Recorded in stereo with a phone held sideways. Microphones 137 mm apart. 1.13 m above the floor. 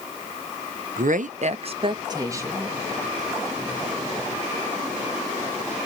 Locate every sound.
1.0 s a woman speaking: 75° right (ahead or behind), 0.6 m; by 2.8 s 15° right (ahead or behind), 0.9 m